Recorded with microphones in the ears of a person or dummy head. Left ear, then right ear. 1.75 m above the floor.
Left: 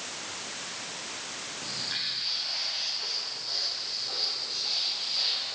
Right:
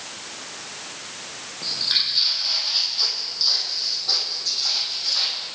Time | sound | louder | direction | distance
1.6 | footsteps | right 11 dB | 35° right (ahead or behind) | 3.5 m